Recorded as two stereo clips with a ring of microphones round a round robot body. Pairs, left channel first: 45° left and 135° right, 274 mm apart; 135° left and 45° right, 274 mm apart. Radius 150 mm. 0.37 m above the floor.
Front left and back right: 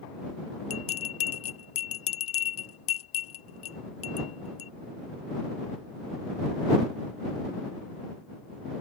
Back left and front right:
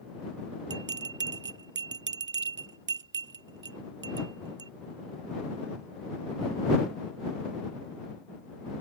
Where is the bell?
5° left.